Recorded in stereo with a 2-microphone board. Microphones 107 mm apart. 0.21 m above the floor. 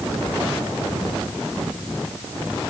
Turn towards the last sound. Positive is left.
No sound to turn to.